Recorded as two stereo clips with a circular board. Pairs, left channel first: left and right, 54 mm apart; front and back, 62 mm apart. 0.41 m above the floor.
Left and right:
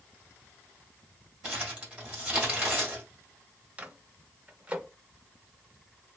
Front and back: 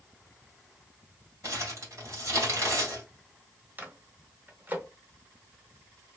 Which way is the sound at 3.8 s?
140° right.